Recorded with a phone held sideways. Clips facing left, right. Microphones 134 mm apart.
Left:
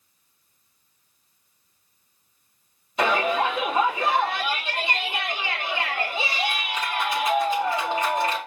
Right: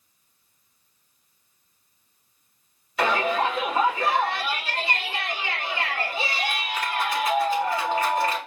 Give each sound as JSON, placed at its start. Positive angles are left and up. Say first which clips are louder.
{"t": 3.0, "sound": "a shout", "louder": "left 1 dB", "side_deg": 20, "distance_m": 3.5}